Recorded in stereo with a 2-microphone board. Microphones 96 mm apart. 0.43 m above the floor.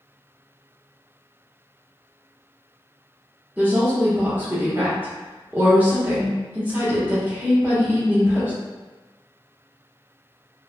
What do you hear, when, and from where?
3.6 s a woman speaking: 20° right (ahead or behind), 0.7 m